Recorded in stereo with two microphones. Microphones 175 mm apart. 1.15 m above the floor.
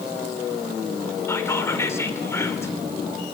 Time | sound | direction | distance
1.3 | whispering | 15° left (ahead or behind) | 3 m